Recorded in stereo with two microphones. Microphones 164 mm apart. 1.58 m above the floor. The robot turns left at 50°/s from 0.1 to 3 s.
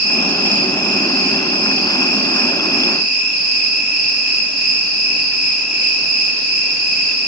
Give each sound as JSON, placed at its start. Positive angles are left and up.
{"t": 0.0, "sound": "an insect", "azimuth_deg": 85, "distance_m": 1.3}